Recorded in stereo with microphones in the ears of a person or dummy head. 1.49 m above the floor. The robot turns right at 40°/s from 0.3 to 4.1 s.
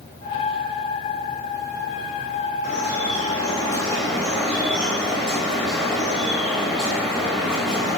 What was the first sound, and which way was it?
Dripping, 120° left.